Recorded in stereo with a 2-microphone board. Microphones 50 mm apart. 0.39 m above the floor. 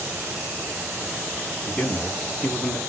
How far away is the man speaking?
About 2.5 m.